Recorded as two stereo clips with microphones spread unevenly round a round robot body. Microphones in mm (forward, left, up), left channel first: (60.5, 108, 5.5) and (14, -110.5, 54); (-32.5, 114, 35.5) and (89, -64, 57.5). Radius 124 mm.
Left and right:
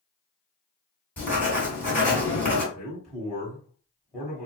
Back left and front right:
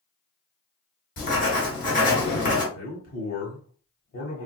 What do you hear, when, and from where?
1.2 s writing: 145° left, 1.9 m
2.7 s a man speaking: 155° left, 1.5 m